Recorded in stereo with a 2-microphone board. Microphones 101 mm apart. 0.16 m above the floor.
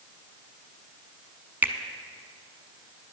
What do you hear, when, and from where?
1.6 s a finger snap: 20° right (ahead or behind), 0.8 m